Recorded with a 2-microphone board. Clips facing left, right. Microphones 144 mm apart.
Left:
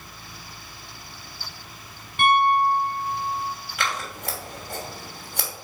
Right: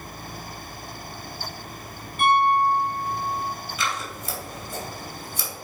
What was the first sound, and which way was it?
A piano, 75° left (ahead or behind).